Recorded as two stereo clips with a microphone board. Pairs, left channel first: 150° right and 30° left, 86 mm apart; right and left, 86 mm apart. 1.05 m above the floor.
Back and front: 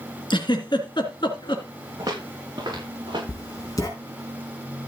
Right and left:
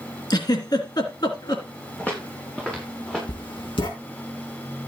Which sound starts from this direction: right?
Writing, at 3.3 s.